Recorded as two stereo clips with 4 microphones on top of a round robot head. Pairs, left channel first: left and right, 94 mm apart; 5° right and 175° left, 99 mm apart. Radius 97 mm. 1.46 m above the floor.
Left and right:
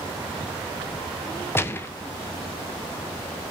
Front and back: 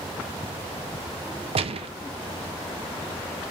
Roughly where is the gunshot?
Behind left.